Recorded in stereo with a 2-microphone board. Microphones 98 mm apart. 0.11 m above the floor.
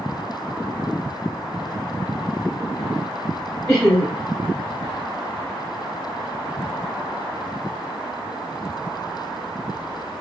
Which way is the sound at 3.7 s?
5° left (ahead or behind).